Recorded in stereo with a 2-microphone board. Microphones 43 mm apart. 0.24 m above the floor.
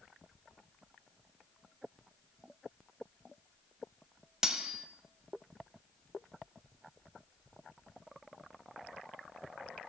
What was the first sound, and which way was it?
Cutlery clinking, 15° right (ahead or behind).